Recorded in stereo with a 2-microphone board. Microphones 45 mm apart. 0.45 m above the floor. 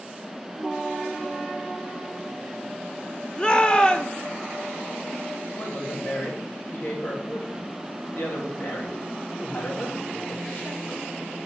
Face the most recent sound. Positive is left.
turn(degrees=55)  # may be behind; listen again after turning